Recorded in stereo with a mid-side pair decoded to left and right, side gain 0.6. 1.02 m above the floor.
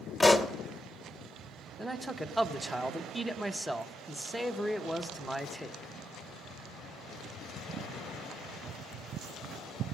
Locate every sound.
0.2 s a pop: 15° left, 0.8 m
1.8 s a man speaking: 5° right, 0.8 m